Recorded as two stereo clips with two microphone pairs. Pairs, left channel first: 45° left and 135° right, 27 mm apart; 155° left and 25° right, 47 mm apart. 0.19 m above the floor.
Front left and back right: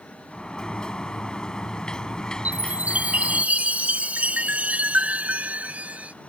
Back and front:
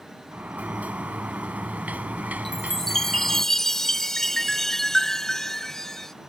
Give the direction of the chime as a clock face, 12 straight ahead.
4 o'clock.